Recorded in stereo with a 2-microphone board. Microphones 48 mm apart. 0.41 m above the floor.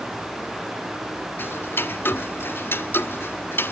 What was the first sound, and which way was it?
Ticking, 55° left (ahead or behind).